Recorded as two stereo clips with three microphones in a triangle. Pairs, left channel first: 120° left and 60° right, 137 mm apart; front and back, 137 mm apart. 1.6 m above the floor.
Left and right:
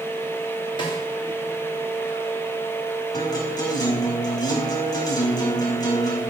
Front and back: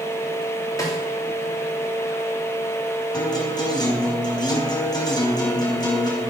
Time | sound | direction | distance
0.8 | a snare drum | 65° left | 3.5 m
3.1 | a guitar | 60° left | 4.5 m